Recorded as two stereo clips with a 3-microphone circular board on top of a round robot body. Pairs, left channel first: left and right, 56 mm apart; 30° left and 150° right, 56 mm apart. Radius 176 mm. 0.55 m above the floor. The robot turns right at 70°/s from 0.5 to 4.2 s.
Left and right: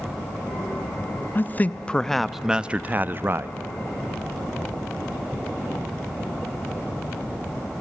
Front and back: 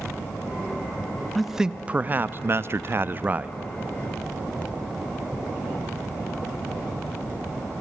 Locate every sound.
1.4 s a man speaking: 115° left, 0.9 m; by 3.6 s 90° right, 0.9 m